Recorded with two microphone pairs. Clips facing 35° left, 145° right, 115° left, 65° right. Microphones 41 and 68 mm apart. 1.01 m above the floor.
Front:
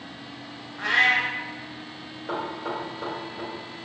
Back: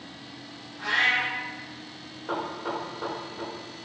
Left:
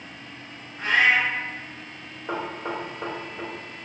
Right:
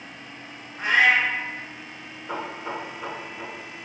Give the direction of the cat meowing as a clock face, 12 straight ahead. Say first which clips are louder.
Front 3 dB, right 1 dB; 12 o'clock.